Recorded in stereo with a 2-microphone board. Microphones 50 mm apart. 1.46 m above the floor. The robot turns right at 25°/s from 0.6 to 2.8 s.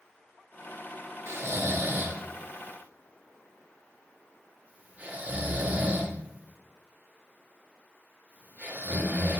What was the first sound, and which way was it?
Snoring, 55° right (ahead or behind).